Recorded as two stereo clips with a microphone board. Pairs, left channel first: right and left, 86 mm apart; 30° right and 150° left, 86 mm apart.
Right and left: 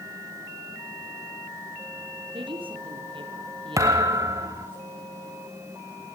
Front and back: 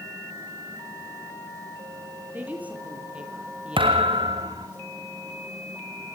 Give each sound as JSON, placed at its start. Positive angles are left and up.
{"t": 2.3, "sound": "a woman speaking", "azimuth_deg": 80, "distance_m": 8.0}
{"t": 3.8, "sound": "a thud", "azimuth_deg": 140, "distance_m": 4.0}